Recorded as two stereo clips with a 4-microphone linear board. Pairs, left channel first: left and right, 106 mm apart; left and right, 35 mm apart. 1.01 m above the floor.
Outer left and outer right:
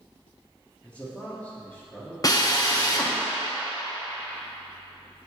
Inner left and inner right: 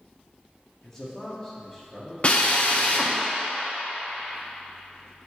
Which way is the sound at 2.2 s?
35° left (ahead or behind).